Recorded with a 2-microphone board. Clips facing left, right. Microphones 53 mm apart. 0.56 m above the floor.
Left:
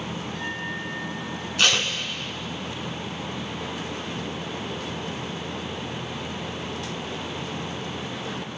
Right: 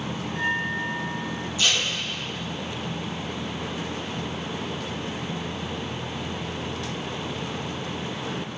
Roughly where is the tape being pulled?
Left.